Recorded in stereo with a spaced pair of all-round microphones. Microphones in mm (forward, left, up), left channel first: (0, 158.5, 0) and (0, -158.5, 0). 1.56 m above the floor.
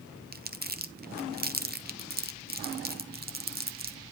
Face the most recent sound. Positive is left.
turn(degrees=-30)  # may be behind; listen again after turning